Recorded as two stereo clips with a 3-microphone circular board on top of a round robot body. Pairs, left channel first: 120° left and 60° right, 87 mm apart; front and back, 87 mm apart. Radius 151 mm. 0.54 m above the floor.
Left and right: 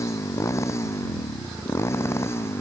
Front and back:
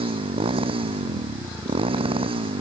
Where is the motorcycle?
Straight behind.